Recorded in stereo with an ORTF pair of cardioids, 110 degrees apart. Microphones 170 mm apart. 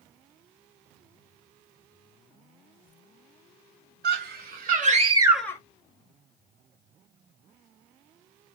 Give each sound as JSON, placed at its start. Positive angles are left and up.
{"t": 4.0, "sound": "a scream", "azimuth_deg": -65, "distance_m": 2.0}